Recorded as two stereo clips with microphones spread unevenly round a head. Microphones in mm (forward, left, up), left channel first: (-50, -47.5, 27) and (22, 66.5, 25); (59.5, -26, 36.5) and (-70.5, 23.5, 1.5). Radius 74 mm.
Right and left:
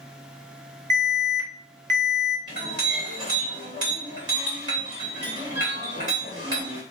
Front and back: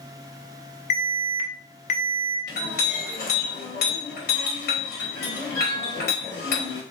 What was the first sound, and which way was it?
An alarm, 15° left.